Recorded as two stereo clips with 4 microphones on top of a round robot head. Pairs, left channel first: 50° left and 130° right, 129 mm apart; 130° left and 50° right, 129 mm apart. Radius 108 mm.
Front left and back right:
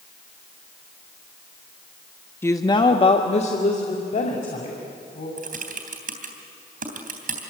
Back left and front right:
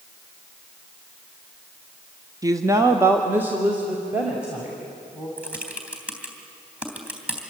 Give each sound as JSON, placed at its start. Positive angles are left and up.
{"t": 2.4, "sound": "a woman speaking", "azimuth_deg": -10, "distance_m": 1.1}
{"t": 5.4, "sound": "typing on a keyboard", "azimuth_deg": -130, "distance_m": 3.0}